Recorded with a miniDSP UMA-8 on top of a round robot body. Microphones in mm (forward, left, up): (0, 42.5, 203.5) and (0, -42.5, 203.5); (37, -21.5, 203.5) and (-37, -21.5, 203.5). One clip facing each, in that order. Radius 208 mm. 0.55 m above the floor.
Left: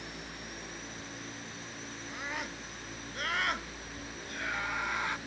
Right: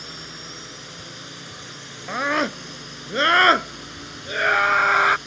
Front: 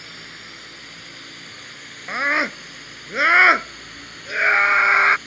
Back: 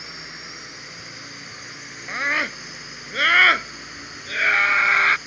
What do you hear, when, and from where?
0.0 s a drone: 105° right; by 5.3 s 100° right
2.1 s a scream: 70° right